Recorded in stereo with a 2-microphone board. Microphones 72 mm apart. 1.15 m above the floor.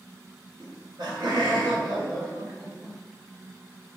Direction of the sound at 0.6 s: 85° right.